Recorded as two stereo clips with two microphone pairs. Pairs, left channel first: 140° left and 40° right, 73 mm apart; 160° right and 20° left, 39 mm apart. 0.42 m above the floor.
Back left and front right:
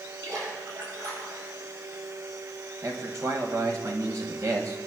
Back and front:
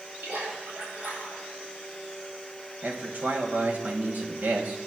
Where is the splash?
5° right, 7.5 m.